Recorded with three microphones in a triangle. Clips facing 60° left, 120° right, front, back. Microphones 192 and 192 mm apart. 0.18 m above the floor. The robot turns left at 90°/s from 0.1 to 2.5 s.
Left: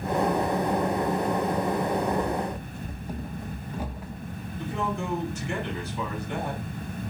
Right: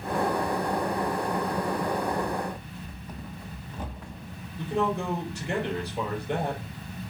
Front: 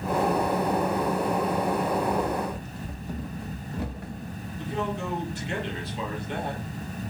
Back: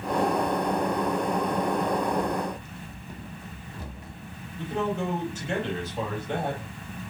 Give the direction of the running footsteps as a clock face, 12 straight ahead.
10 o'clock.